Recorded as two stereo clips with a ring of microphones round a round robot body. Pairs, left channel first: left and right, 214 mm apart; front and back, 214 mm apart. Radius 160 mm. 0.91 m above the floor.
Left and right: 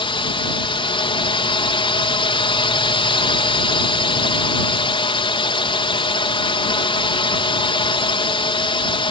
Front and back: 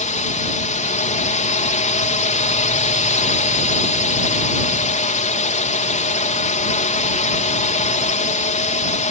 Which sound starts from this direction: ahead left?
A drone, at 0.0 s.